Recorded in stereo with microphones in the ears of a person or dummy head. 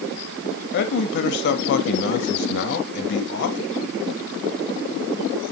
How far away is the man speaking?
About 0.8 m.